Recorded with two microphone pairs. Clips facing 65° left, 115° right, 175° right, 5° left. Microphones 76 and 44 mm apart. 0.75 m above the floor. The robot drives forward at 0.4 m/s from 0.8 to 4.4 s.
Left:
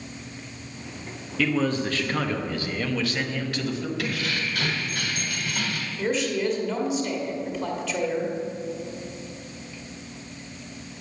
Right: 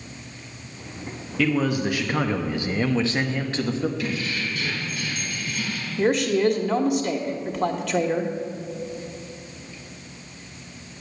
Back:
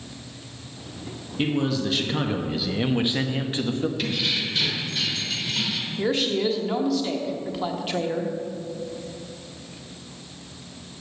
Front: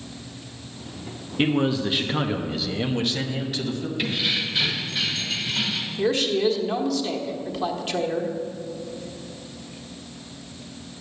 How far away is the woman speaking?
About 1.2 m.